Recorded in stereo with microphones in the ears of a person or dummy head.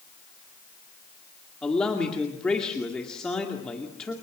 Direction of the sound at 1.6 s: 5° left (ahead or behind).